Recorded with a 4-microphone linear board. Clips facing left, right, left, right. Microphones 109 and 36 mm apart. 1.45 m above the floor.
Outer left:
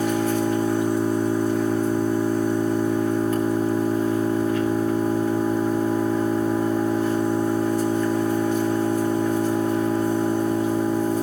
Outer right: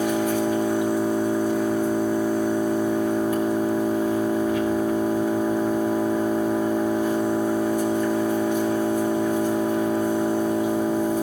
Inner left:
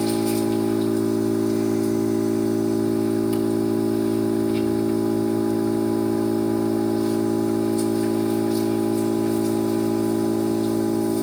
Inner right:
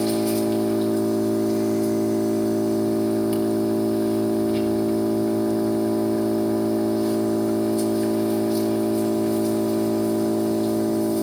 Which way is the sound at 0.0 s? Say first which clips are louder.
Even, even; 15° right (ahead or behind).